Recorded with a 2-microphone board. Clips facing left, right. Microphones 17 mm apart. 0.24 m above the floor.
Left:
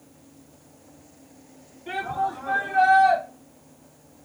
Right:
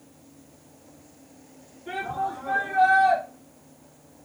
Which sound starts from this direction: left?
A shout, at 1.9 s.